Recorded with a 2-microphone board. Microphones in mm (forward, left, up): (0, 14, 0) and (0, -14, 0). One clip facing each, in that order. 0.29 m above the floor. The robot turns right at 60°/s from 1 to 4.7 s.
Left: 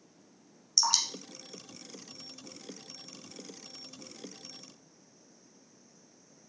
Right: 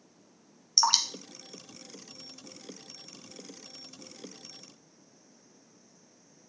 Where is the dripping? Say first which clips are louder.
Right 3 dB; 30° right (ahead or behind), 1.0 m; by 2.7 s 70° left (ahead or behind), 1.0 m.